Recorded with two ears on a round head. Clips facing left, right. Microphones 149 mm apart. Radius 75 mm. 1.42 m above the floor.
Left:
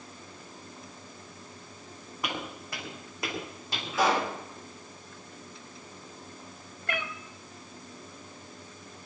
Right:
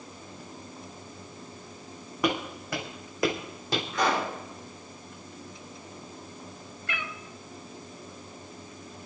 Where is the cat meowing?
40° left (ahead or behind), 1.0 m.